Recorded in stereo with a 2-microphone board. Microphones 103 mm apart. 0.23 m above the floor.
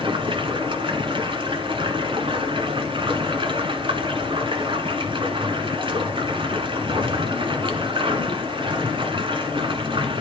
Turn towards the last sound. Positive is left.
turn(degrees=-60)  # may be behind; listen again after turning